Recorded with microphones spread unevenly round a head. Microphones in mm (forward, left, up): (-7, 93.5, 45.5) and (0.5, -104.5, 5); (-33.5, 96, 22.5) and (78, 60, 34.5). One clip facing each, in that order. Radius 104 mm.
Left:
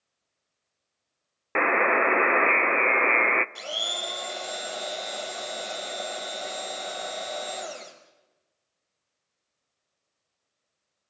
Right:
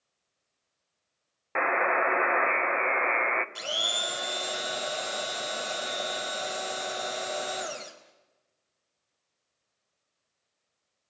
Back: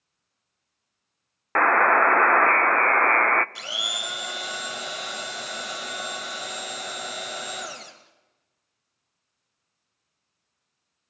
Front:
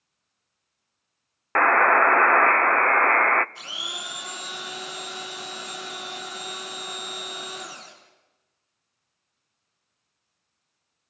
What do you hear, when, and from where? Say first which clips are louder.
1.6 s a buzzer: left 4 dB, even; 70° left, 0.6 m
3.5 s a blender: even, back 4 dB; 175° right, 2.5 m